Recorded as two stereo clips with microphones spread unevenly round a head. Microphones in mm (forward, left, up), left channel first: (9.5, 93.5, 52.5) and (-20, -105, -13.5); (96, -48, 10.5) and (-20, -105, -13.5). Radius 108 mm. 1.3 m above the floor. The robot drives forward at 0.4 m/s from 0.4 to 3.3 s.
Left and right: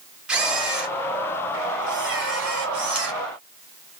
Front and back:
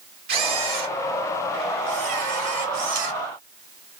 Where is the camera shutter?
175° left, 2.0 m.